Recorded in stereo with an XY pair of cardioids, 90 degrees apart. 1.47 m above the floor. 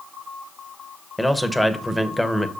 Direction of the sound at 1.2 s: 5° left.